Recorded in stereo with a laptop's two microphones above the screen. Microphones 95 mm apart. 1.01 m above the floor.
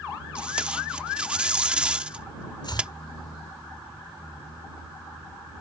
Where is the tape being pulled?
10° right (ahead or behind).